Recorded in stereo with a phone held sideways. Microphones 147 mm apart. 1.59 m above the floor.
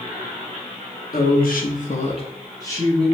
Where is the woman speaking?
85° left, 0.8 m; by 3.1 s 5° left (ahead or behind), 0.8 m.